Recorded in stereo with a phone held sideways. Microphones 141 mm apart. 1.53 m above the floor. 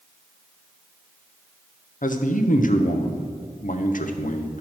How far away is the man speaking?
About 0.8 m.